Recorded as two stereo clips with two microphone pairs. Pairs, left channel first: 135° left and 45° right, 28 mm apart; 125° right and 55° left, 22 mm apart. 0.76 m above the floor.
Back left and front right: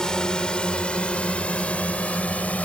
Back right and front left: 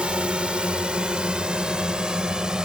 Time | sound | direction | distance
0.0 | a drone | 75° left | ?